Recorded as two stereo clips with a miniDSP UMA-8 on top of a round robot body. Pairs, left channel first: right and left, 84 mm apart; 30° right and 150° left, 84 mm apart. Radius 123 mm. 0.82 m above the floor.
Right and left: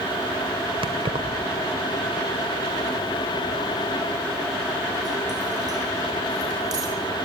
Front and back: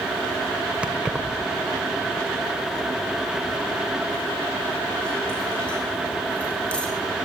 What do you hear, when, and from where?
0.8 s keys jangling: 70° left, 2.5 m; by 6.9 s 45° left, 7 m